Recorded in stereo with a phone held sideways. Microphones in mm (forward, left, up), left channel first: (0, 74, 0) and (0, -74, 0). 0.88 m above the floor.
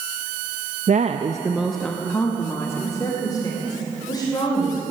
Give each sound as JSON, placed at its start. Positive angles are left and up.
{"t": 0.9, "sound": "a woman speaking", "side_deg": -55, "distance_m": 0.5}